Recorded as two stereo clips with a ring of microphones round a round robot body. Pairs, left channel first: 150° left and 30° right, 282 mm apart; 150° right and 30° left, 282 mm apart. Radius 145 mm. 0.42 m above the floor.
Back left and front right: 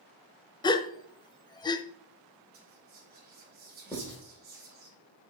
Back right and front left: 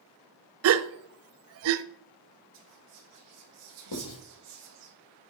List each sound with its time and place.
0.6 s a gasp: 75° left, 0.5 m
2.5 s whispering: 20° left, 1.8 m
3.9 s writing: 125° right, 5 m